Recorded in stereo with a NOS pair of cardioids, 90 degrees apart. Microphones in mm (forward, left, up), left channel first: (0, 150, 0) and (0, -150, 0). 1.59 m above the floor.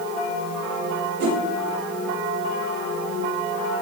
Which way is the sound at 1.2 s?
70° right.